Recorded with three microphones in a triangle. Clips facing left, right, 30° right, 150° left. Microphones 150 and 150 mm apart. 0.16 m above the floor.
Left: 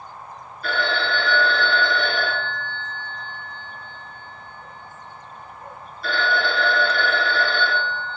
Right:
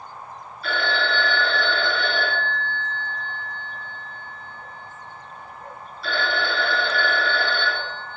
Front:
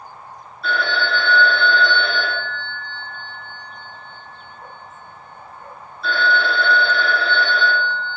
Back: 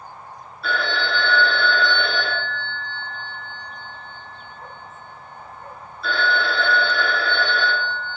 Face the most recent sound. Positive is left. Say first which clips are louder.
# left 1 dB, front 2 dB
turn(degrees=60)